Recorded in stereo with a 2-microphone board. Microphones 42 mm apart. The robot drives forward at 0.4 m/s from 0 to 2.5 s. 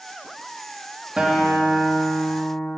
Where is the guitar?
20° right (ahead or behind), 1.6 m.